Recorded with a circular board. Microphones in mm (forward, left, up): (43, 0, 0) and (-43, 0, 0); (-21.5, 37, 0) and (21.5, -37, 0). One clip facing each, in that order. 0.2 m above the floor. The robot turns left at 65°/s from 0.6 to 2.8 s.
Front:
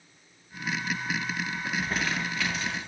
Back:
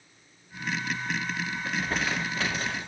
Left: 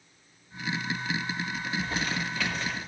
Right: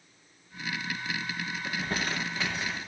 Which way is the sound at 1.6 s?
75° right.